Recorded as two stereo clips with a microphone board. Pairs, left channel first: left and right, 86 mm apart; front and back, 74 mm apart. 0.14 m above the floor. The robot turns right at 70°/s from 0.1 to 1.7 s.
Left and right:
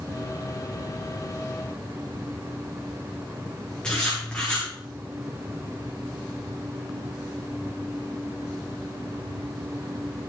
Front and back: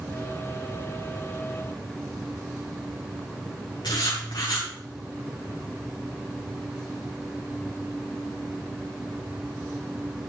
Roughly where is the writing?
Ahead.